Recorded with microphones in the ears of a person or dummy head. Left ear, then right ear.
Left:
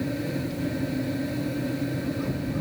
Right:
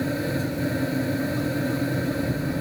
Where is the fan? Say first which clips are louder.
Right 3 dB; 40° right (ahead or behind).